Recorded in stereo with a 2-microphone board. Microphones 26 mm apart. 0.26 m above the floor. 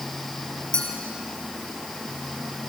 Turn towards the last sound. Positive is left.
turn(degrees=45)  # may be behind; listen again after turning